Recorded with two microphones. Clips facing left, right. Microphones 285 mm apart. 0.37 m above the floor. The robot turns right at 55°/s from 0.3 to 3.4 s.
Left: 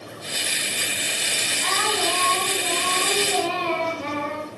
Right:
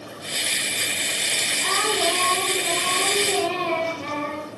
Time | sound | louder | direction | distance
1.6 | singing | right 2 dB | 140° right | 4 m